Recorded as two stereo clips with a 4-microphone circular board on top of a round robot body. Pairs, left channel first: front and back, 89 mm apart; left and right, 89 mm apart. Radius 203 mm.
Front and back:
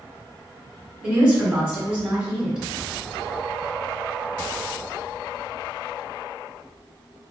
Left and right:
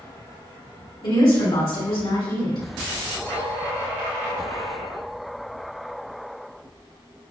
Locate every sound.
1.0 s a woman speaking: 105° left, 1.7 m